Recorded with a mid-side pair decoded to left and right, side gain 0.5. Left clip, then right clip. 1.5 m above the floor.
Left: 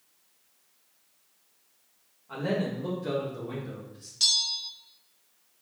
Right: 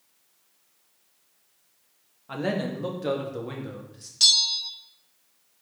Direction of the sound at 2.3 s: 60° right.